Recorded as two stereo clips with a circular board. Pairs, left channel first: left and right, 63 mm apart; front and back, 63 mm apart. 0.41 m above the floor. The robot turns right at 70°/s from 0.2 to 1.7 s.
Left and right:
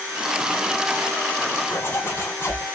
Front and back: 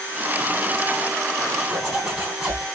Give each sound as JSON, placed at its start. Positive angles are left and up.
{"t": 1.7, "sound": "a zipper", "azimuth_deg": 115, "distance_m": 1.3}